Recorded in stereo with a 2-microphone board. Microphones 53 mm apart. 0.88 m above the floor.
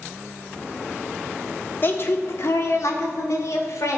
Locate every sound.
1.8 s a woman speaking: 45° left (ahead or behind), 1.6 m; by 4.0 s 80° left, 3 m